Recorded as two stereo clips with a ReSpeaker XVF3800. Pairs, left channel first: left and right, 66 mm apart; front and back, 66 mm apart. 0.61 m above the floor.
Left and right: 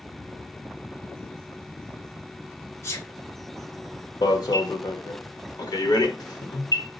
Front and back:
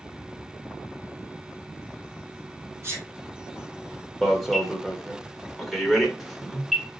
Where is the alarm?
90° left, 1.0 m.